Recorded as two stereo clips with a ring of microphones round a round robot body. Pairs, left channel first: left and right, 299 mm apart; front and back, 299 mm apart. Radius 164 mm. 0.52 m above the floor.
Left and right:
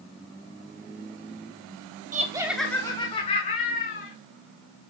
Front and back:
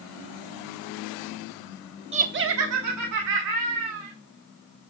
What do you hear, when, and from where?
2.1 s laughter: 130° right, 0.8 m; by 4.1 s 155° left, 2.5 m